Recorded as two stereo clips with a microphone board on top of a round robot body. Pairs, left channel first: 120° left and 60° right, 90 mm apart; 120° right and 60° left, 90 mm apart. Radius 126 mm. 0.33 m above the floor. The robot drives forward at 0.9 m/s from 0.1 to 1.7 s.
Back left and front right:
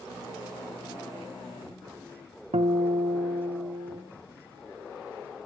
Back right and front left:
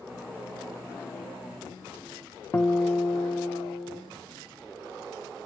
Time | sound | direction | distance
2.5 | a guitar | 55° right | 0.6 m